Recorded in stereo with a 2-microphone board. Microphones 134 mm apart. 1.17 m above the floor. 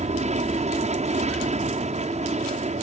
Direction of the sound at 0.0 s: 55° right (ahead or behind).